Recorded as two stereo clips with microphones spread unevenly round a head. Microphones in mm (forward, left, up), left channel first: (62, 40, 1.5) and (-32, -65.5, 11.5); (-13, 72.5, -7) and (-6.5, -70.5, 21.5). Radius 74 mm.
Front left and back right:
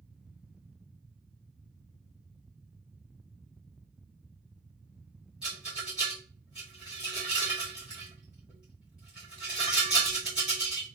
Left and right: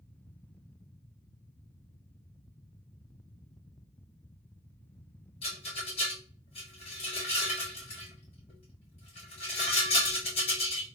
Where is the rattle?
145° left, 2 m.